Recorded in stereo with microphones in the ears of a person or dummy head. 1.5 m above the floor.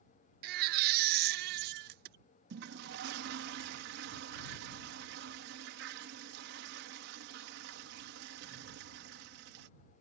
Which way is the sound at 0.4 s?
65° right (ahead or behind).